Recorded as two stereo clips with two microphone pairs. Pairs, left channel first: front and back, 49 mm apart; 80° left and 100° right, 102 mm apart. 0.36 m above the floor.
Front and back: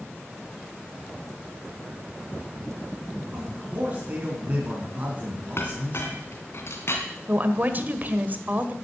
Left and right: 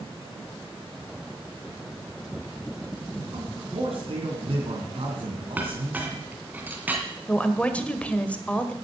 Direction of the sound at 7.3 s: 155° left.